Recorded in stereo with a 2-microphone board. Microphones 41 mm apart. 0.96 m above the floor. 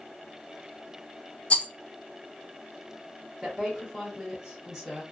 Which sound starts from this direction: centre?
A woman speaking, at 3.4 s.